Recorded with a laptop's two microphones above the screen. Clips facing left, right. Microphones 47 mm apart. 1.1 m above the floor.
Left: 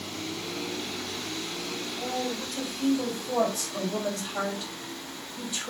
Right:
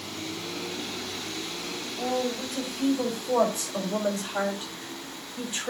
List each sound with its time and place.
2.0 s a woman speaking: 25° right (ahead or behind), 5.5 m; by 5.7 s 35° right (ahead or behind), 3.5 m